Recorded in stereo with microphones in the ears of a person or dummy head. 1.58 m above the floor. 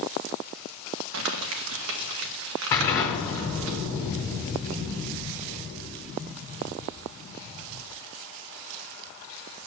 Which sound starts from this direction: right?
Crumpling, at 1.1 s.